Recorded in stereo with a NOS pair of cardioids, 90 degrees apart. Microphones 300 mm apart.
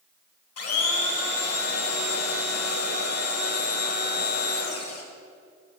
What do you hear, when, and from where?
0.6 s a blender: 55° left, 2 m